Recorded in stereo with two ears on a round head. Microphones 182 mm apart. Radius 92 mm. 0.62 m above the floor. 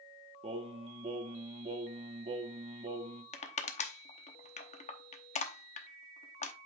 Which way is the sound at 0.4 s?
30° right (ahead or behind).